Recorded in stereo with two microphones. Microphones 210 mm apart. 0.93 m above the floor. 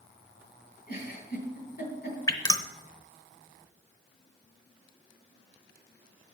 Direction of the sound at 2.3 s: 15° left (ahead or behind).